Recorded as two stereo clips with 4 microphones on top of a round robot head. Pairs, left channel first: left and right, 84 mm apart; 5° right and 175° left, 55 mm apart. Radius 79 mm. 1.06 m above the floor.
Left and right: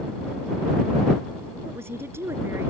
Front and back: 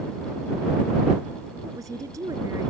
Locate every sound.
1.6 s a woman speaking: 150° right